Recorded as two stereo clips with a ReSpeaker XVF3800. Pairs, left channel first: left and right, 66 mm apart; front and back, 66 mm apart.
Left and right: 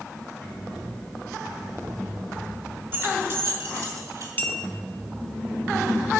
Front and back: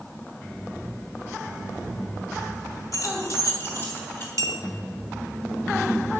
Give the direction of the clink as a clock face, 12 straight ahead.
7 o'clock.